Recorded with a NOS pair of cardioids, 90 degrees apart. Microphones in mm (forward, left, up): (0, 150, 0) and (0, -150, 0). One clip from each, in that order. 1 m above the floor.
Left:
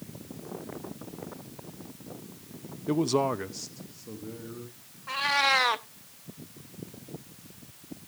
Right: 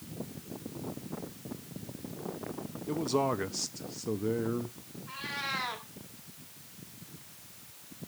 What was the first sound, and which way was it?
A man speaking, 40° left.